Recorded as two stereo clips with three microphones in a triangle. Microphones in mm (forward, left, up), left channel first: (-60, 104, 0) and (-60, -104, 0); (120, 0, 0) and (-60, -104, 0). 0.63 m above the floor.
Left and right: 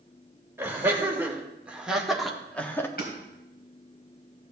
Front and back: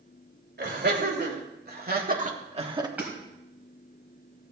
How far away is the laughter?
About 3 m.